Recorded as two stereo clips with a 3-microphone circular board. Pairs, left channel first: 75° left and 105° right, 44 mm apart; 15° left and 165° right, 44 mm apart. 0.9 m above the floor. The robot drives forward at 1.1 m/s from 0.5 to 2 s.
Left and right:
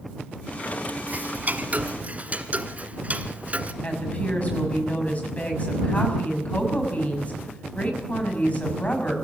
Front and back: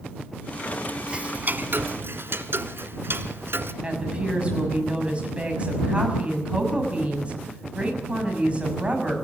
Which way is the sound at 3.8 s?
130° left.